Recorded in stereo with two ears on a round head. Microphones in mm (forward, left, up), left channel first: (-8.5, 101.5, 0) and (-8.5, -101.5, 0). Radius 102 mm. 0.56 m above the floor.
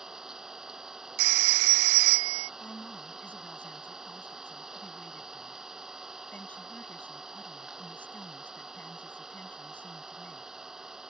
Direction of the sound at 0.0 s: Centre (ahead or behind).